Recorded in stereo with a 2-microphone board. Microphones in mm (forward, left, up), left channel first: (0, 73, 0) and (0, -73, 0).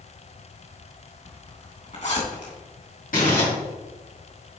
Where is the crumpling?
65° left (ahead or behind), 3 m.